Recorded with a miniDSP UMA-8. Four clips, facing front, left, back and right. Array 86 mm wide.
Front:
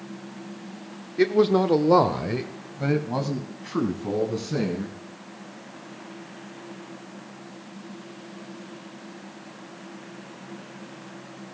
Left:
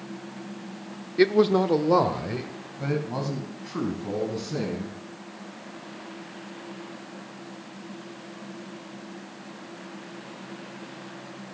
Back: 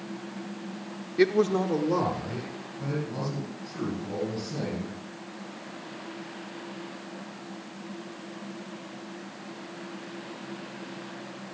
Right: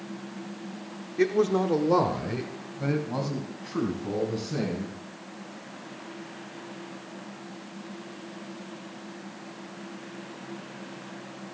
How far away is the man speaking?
About 0.7 m.